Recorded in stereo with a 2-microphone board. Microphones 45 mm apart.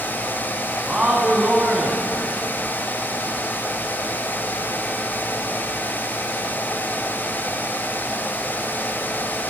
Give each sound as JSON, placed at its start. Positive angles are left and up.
{"t": 0.9, "sound": "a man speaking", "side_deg": -20, "distance_m": 1.5}